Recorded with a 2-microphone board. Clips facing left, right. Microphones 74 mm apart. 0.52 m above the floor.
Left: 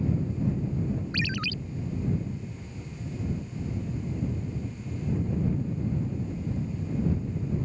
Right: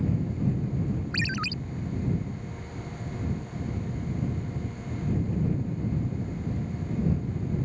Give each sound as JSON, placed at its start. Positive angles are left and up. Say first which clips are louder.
{"t": 1.1, "sound": "a ringtone", "louder": "right 1 dB", "side_deg": -25}